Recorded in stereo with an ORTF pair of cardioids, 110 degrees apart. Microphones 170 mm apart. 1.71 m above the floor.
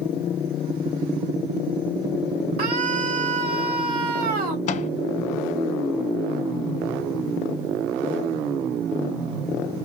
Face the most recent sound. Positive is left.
turn(degrees=45)